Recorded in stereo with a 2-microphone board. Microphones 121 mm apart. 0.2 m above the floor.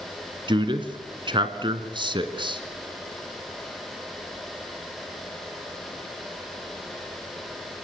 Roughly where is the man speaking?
Right.